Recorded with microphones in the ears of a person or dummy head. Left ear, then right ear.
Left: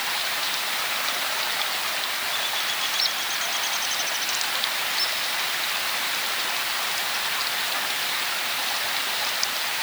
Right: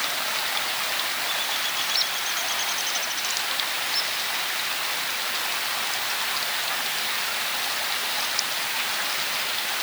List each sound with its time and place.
Only background noise.